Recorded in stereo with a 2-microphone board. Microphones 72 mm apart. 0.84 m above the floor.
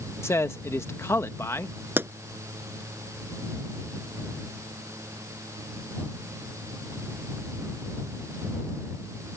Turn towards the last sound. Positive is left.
turn(degrees=-30)  # may be behind; listen again after turning